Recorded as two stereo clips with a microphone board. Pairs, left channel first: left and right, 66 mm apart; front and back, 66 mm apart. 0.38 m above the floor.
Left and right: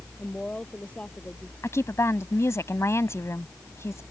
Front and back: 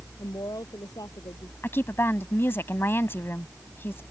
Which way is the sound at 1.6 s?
50° left.